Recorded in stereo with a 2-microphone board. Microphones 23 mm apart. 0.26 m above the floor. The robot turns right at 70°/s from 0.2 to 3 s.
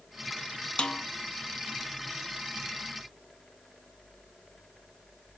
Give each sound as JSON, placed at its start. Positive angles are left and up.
{"t": 0.8, "sound": "a snare drum", "side_deg": 55, "distance_m": 0.6}